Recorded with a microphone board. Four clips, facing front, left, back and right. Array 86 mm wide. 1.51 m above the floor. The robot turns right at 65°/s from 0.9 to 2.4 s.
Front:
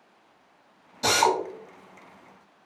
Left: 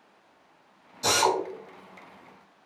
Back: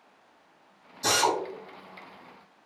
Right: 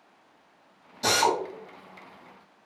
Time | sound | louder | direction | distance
1.0 | a drill | even, front 3 dB | 25° right | 1.3 m